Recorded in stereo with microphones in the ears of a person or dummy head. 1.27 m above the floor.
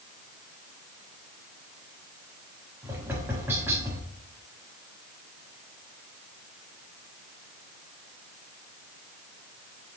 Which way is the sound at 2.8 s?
10° right (ahead or behind).